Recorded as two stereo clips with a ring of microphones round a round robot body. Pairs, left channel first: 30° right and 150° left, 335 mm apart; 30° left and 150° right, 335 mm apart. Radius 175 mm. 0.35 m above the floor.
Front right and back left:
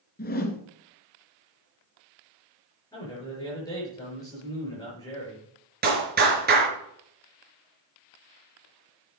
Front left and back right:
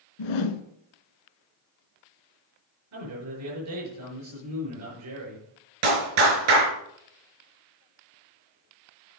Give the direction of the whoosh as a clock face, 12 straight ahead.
11 o'clock.